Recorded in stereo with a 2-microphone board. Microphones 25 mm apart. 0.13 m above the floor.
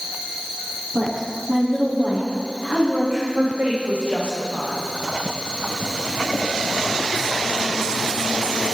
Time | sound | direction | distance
0.9 | a woman speaking | 25° right (ahead or behind) | 10 m
3.4 | a woman speaking | 60° right (ahead or behind) | 8.5 m